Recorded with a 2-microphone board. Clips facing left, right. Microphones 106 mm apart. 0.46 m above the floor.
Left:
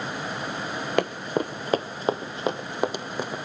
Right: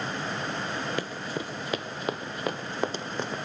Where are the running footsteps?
60° left (ahead or behind), 0.9 m; by 3.4 s 10° left (ahead or behind), 1.6 m.